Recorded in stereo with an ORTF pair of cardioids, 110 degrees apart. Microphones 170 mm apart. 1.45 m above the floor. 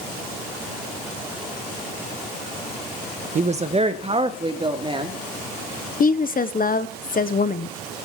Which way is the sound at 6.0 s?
60° left.